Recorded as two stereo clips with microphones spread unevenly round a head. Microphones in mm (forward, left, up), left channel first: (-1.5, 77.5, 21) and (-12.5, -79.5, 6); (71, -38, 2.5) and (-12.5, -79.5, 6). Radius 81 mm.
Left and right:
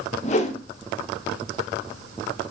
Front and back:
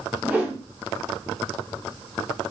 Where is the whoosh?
130° left, 0.5 m.